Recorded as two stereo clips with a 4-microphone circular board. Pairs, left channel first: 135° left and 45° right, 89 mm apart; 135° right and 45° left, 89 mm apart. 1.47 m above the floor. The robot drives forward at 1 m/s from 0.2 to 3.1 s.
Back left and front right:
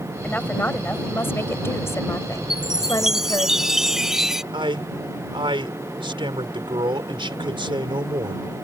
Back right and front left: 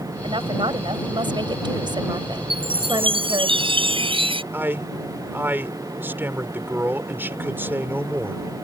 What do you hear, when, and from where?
0.2 s a woman speaking: 65° left; by 3.5 s 85° left
2.5 s a chime: 40° left
4.5 s a man speaking: 20° right